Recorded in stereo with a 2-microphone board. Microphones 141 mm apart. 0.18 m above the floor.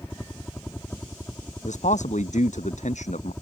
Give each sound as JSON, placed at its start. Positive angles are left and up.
{"t": 0.0, "sound": "a helicopter", "side_deg": 15}
{"t": 1.6, "sound": "a man speaking", "side_deg": 60}